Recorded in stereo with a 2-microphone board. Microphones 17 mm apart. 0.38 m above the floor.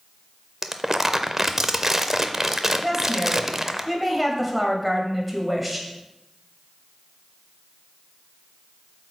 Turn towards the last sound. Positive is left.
turn(degrees=-5)  # may be behind; listen again after turning